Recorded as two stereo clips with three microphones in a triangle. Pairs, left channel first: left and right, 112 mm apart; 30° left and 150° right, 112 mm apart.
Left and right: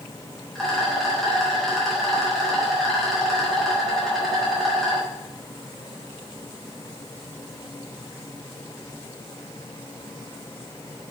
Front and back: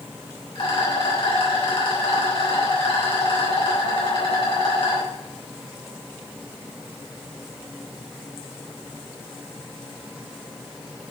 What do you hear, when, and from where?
0.6 s a rattle: 5° left, 3.5 m